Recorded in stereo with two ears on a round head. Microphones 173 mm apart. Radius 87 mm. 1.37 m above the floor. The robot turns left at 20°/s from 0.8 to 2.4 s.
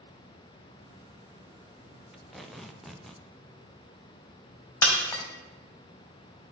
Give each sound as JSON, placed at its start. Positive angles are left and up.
{"t": 2.1, "sound": "tape being pulled", "side_deg": -5, "distance_m": 0.6}
{"t": 4.8, "sound": "breaking glass", "side_deg": 15, "distance_m": 1.8}